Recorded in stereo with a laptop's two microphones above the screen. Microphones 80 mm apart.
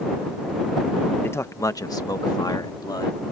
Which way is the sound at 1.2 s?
25° left (ahead or behind).